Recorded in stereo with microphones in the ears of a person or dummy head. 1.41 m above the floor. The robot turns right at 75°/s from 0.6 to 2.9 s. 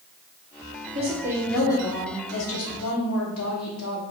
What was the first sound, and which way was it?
A woman speaking, 40° right.